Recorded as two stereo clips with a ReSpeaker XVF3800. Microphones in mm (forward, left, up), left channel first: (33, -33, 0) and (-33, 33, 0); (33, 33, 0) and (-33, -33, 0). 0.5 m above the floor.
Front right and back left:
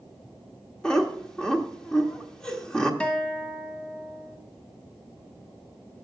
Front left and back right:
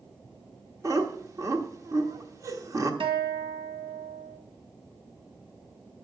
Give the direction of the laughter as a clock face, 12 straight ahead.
4 o'clock.